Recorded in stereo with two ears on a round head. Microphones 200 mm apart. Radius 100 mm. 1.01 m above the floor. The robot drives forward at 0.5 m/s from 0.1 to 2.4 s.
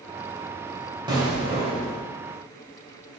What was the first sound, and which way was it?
An explosion, 20° right (ahead or behind).